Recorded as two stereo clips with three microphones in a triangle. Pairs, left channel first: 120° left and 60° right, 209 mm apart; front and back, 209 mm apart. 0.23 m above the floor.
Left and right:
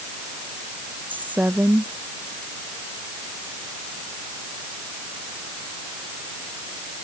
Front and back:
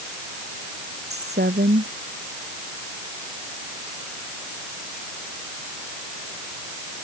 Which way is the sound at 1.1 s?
140° right.